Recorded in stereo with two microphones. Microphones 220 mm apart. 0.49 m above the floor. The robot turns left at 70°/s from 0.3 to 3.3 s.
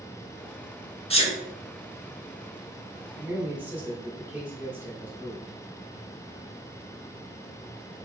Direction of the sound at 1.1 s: 25° left (ahead or behind).